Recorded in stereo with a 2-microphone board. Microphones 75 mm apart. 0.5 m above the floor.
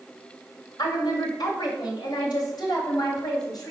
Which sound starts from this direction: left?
A woman speaking, at 0.8 s.